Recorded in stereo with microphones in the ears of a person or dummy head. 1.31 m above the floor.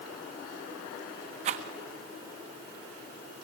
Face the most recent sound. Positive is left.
turn(degrees=-45)  # may be behind; listen again after turning